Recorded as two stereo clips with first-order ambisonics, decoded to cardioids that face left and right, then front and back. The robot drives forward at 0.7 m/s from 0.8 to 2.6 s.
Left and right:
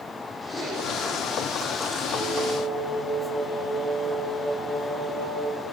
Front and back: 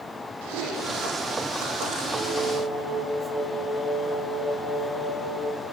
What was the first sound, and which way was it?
Chewing, 175° right.